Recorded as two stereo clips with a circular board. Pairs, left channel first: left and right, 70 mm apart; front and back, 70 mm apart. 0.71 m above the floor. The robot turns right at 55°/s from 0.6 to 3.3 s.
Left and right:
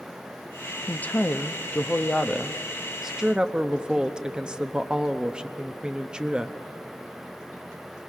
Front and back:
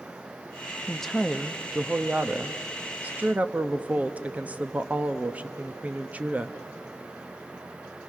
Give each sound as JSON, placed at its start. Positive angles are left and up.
{"t": 0.9, "sound": "a woman speaking", "azimuth_deg": 75, "distance_m": 0.8}